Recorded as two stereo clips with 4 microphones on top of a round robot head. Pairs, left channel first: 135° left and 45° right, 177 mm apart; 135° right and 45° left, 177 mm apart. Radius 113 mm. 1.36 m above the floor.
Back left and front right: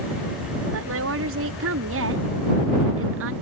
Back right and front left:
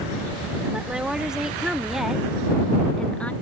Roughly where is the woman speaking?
Ahead right.